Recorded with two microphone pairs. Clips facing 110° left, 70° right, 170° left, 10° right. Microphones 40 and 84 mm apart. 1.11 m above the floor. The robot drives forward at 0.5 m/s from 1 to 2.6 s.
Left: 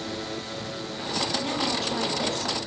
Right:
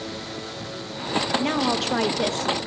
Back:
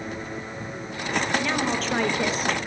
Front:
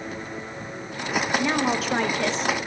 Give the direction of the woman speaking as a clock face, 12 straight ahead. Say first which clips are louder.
Right 4 dB, front 2 dB; 3 o'clock.